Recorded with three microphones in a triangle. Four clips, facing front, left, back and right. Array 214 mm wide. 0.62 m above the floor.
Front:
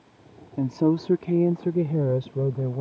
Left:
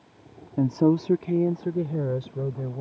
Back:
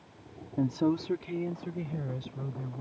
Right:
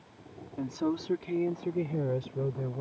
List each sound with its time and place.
0.6 s a woman speaking: 85° left; by 2.8 s straight ahead